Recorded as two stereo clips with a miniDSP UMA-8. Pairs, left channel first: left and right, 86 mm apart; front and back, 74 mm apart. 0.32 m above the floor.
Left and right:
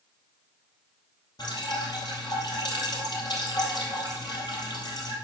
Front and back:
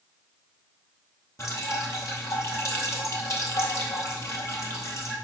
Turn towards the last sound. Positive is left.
turn(degrees=50)